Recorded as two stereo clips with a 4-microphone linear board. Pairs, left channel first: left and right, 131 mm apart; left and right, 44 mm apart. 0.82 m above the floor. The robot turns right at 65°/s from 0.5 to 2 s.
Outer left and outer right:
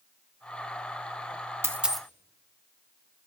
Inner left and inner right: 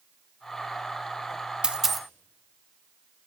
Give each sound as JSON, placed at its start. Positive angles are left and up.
{"t": 1.6, "sound": "a dropped coin", "side_deg": -20, "distance_m": 0.6}